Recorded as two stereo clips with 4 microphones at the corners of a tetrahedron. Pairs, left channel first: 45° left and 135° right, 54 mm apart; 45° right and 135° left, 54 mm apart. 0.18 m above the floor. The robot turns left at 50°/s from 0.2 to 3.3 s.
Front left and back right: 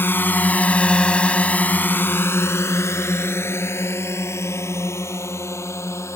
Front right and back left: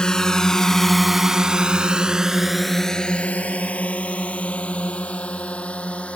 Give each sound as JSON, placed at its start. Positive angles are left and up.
{"t": 0.0, "sound": "a drone", "azimuth_deg": 25}